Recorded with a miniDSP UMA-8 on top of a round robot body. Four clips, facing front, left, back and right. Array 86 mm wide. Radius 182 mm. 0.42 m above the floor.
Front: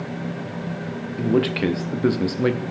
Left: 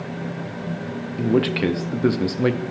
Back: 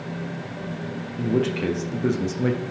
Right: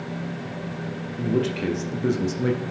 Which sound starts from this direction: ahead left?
A man speaking, at 1.2 s.